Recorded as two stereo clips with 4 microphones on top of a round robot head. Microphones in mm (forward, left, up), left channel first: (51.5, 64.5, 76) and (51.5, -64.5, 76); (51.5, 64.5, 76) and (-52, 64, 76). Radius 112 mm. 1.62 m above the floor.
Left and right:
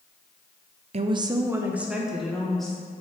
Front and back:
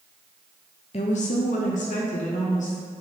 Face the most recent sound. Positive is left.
turn(degrees=0)